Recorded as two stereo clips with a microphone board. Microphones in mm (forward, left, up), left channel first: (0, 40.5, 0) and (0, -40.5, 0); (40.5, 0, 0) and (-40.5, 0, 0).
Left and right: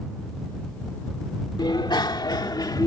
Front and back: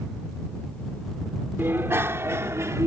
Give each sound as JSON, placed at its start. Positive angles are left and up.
{"t": 1.6, "sound": "a bicycle bell", "azimuth_deg": 120}